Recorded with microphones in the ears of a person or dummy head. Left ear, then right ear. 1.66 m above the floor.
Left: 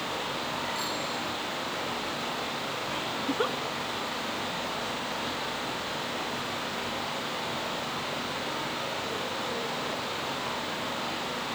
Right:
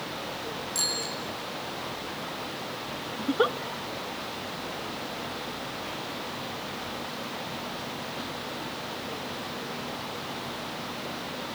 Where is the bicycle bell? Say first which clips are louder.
Right 2 dB; 45° right (ahead or behind), 7.5 m.